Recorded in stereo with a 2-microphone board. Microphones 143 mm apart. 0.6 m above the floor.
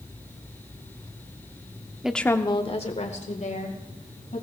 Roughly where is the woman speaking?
Centre.